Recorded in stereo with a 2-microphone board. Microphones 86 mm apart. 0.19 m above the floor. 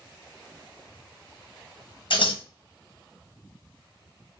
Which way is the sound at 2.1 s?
70° left (ahead or behind).